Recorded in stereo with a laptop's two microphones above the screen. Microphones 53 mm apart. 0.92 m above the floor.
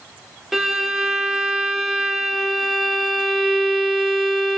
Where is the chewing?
I don't hear chewing.